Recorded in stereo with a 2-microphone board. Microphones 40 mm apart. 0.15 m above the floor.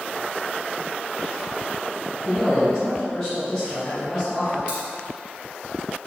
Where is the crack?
30° right (ahead or behind), 1.7 m.